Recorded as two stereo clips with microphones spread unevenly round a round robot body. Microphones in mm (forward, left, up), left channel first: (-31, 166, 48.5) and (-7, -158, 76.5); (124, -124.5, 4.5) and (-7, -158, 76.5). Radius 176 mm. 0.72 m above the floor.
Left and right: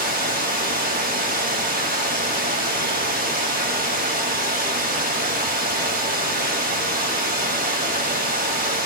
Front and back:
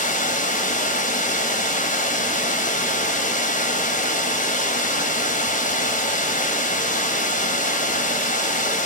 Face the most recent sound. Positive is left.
turn(degrees=-20)